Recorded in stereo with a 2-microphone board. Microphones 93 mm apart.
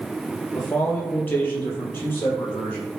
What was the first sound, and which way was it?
A man speaking, 20° left (ahead or behind).